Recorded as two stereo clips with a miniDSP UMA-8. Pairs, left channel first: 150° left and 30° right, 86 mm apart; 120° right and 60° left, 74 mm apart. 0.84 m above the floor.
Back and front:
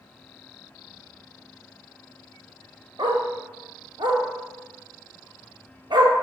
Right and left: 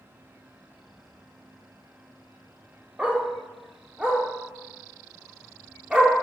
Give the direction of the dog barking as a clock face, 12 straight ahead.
12 o'clock.